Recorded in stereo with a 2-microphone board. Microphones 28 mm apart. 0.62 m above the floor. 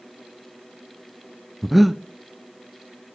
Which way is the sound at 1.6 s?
10° right (ahead or behind).